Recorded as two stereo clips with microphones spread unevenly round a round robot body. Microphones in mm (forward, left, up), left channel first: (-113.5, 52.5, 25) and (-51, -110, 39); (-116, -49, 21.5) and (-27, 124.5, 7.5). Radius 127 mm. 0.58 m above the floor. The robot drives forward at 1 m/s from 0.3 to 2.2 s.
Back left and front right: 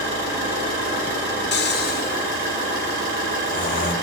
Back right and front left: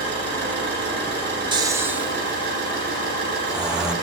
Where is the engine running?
35° right, 9.5 m; by 4.0 s 40° right, 8 m.